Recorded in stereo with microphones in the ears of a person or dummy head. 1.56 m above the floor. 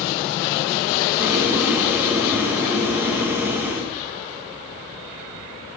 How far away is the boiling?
About 1.5 m.